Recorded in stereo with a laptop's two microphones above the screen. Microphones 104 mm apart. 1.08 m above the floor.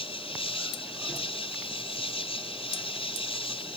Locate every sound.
0.0 s an insect: 70° left (ahead or behind)